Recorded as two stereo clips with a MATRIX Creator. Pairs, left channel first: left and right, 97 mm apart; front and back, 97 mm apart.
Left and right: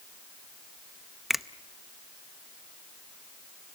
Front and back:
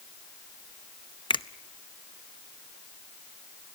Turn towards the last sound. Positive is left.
turn(degrees=0)